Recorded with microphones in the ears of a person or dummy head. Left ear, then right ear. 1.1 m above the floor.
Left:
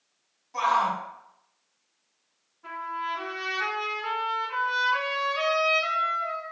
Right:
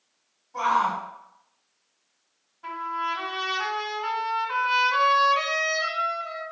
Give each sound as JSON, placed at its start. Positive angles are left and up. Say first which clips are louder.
{"t": 0.5, "sound": "a shout", "louder": "right 1 dB", "side_deg": 60, "distance_m": 1.8}
{"t": 2.6, "sound": "a trumpet", "louder": "right 3 dB", "side_deg": -70, "distance_m": 2.0}